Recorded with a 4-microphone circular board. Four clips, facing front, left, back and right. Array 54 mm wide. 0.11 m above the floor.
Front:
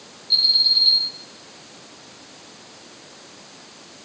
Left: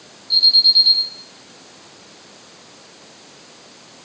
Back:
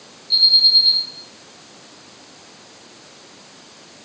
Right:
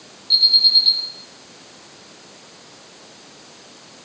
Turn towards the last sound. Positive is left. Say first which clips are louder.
# left 1 dB, back 4 dB
turn(degrees=-80)